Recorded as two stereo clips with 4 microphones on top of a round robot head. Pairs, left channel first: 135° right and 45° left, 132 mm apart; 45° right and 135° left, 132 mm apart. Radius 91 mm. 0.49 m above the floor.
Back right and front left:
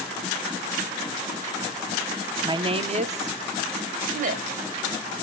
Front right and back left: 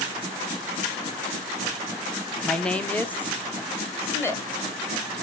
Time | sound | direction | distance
2.4 | a woman speaking | 45° left | 0.8 m